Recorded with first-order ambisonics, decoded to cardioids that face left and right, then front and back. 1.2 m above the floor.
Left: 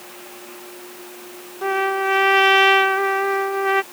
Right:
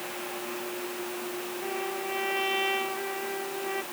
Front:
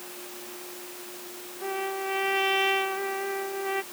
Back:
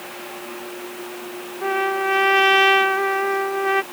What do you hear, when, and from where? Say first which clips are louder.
1.6 s a trumpet: left 15 dB, back 10 dB; 125° left